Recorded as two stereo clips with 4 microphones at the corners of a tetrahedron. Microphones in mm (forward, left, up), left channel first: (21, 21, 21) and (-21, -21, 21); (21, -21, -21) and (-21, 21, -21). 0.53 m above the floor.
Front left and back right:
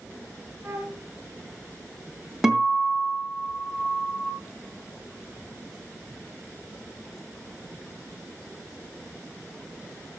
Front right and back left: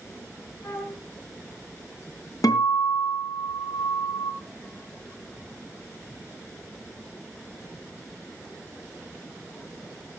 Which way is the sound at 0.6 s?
80° right.